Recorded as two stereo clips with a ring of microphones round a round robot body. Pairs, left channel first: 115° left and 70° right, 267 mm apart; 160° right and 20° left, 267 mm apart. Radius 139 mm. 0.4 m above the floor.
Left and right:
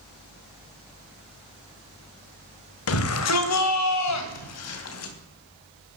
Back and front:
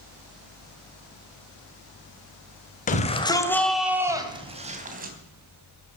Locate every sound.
2.9 s a shout: 145° left, 2.5 m; by 5.1 s 80° left, 3.5 m